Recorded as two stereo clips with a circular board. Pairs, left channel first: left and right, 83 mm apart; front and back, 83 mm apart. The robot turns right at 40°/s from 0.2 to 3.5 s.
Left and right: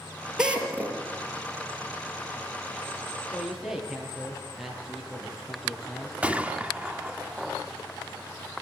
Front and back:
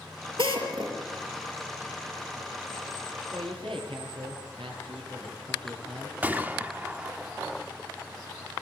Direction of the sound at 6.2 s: 145° right.